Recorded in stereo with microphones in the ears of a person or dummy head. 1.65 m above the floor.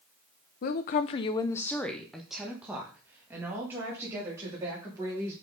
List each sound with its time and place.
0.6 s a woman speaking: 45° left (ahead or behind), 0.7 m; by 5.3 s 15° right (ahead or behind), 3.5 m